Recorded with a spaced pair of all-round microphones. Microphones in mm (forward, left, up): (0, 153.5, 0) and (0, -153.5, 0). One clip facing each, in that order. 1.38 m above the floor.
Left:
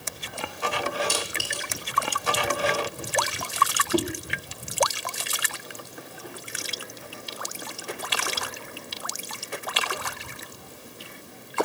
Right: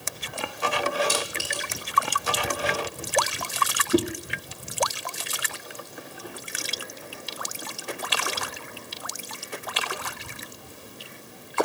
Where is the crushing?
5° right (ahead or behind), 1.4 m.